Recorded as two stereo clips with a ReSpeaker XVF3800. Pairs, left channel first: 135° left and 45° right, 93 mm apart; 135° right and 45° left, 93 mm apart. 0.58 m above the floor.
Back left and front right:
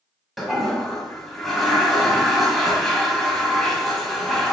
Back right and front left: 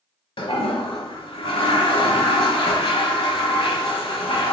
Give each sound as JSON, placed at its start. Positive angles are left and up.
{"t": 0.4, "sound": "a toilet flushing", "azimuth_deg": -135, "distance_m": 1.0}